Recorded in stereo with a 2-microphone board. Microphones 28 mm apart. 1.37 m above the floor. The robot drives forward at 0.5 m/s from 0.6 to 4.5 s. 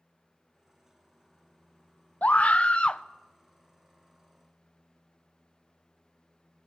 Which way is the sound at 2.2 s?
60° left (ahead or behind).